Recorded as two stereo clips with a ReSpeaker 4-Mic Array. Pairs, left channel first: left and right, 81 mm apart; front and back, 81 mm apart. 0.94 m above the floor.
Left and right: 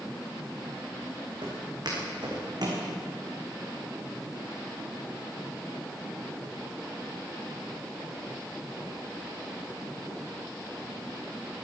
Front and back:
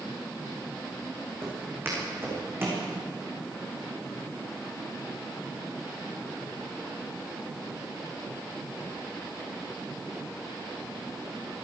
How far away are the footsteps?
About 5 m.